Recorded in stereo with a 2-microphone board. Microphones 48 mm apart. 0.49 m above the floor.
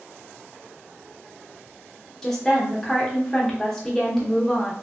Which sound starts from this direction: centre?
A woman speaking, at 2.2 s.